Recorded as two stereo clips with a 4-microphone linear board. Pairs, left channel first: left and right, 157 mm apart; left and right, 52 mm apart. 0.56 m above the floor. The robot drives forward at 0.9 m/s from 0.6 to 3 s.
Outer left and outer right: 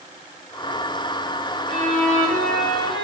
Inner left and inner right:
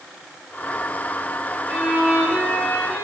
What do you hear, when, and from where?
1.7 s a violin: 5° left (ahead or behind), 1.9 m; by 3.0 s centre (ahead or behind), 3 m